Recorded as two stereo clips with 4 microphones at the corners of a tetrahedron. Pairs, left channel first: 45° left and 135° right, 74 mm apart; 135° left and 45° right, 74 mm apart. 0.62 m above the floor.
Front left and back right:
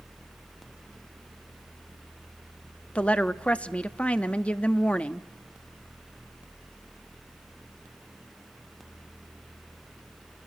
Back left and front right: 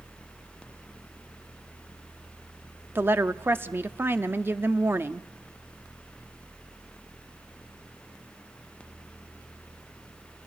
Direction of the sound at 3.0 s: 20° right.